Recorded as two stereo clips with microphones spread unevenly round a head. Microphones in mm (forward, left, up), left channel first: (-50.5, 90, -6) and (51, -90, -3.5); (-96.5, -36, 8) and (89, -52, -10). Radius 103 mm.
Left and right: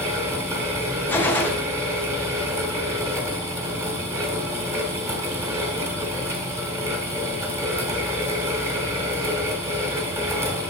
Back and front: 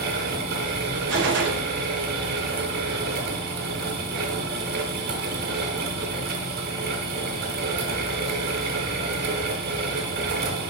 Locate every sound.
0.0 s a fan: 15° left, 1.1 m
1.1 s a gunshot: 40° left, 0.7 m